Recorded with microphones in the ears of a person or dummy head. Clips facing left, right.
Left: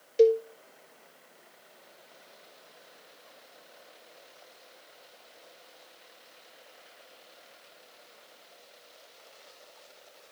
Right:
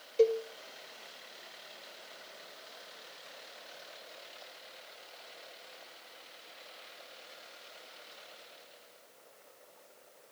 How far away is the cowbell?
About 1.4 m.